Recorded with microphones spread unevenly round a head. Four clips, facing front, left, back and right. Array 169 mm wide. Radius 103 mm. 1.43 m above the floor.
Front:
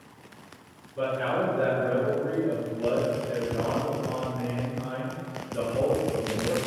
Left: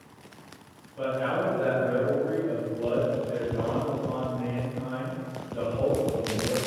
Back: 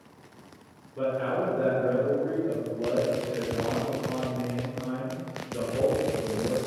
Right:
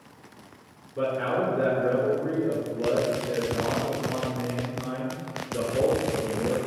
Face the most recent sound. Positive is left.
turn(degrees=-85)